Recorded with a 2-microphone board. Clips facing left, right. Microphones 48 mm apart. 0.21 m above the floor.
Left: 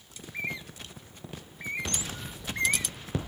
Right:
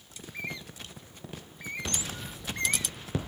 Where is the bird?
20° left (ahead or behind).